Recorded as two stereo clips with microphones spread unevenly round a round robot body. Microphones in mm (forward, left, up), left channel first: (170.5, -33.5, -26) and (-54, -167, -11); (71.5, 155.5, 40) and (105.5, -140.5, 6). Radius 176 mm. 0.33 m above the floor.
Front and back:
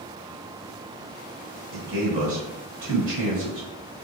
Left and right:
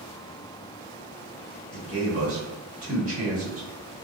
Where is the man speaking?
135° right, 1.3 m.